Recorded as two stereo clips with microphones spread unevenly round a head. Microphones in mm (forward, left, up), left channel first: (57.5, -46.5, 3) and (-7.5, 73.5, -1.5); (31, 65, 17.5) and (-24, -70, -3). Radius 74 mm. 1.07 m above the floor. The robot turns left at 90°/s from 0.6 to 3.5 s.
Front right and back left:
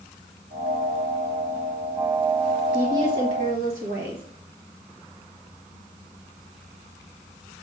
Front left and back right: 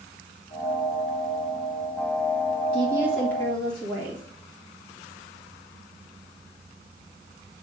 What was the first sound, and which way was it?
A woman speaking, 160° right.